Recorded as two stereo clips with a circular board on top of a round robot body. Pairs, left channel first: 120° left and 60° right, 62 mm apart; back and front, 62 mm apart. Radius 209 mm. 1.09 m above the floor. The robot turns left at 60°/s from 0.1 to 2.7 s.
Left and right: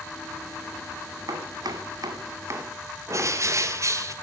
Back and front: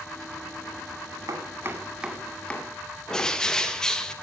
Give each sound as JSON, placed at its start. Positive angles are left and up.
{"t": 1.3, "sound": "chopping", "azimuth_deg": -35, "distance_m": 1.8}
{"t": 3.1, "sound": "a bird", "azimuth_deg": -100, "distance_m": 1.2}